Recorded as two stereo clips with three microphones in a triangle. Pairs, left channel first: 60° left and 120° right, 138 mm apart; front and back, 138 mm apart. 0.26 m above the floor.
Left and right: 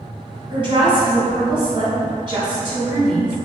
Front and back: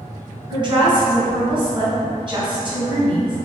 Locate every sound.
0.5 s a woman speaking: 150° right, 1.7 m